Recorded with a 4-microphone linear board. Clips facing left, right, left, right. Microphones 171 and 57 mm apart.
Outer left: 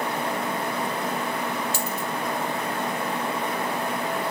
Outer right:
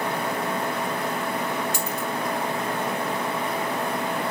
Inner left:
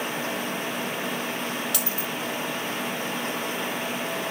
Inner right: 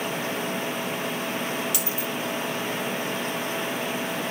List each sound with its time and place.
1.7 s a dropped coin: 15° right (ahead or behind), 6 m